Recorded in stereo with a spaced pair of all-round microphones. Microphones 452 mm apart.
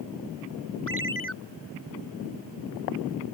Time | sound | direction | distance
0.9 | a ringtone | 25° right (ahead or behind) | ?